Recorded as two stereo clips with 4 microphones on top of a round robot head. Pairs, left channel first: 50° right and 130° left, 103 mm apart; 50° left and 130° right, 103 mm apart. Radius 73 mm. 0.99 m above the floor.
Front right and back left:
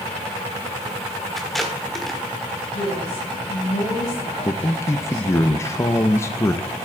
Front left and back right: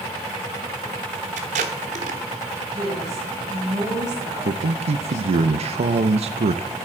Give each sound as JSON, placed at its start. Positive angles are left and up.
{"t": 1.4, "sound": "tape being pulled", "azimuth_deg": -140, "distance_m": 1.2}
{"t": 2.7, "sound": "a woman speaking", "azimuth_deg": -75, "distance_m": 6.0}
{"t": 4.5, "sound": "a man speaking", "azimuth_deg": -115, "distance_m": 0.6}